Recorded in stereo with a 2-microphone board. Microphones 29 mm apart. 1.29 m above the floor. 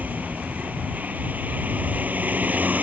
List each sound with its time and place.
0.0 s a vehicle: 65° right (ahead or behind)